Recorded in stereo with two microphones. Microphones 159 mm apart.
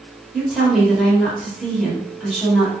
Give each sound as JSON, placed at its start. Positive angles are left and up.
{"t": 0.3, "sound": "a woman speaking", "side_deg": 0, "distance_m": 1.1}